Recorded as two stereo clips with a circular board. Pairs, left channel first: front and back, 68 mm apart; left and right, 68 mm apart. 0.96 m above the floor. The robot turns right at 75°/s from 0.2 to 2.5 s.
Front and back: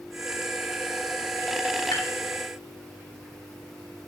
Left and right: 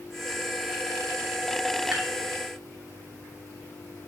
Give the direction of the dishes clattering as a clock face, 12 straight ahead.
12 o'clock.